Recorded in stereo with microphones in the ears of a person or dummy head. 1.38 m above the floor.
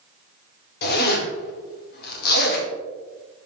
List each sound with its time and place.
0.8 s a zipper: 55° left (ahead or behind), 2 m